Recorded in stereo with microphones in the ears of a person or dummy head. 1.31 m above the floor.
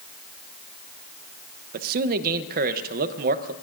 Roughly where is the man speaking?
Right.